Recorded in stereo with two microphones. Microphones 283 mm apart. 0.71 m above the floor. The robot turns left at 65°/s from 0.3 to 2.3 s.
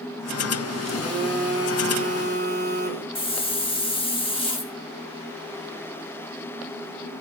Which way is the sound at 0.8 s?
5° left.